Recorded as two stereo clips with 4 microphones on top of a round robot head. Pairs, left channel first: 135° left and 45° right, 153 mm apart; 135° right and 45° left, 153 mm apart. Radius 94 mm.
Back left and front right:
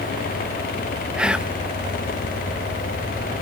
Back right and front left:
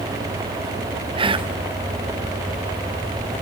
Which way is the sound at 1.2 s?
35° left.